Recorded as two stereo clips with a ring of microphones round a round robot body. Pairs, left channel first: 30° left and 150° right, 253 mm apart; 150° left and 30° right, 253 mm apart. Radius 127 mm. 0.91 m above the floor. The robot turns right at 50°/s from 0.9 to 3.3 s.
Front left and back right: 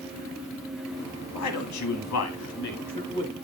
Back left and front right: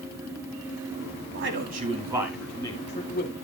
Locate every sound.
1.3 s a man speaking: 5° left, 2 m; by 3.3 s 105° left, 2 m